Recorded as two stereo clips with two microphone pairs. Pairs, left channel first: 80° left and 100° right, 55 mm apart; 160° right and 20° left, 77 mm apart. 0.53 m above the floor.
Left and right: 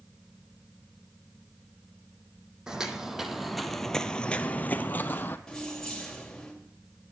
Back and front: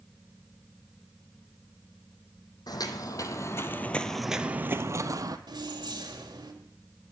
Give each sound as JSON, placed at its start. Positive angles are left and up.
{"t": 2.7, "sound": "footsteps", "azimuth_deg": 180, "distance_m": 1.0}
{"t": 5.5, "sound": "keys jangling", "azimuth_deg": 0, "distance_m": 1.8}